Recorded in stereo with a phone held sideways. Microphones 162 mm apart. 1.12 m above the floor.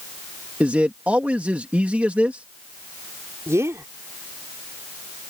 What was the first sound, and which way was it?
A man speaking, 10° right (ahead or behind).